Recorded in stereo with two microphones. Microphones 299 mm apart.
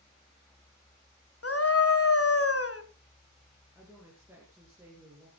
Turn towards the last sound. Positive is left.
turn(degrees=-10)  # may be behind; listen again after turning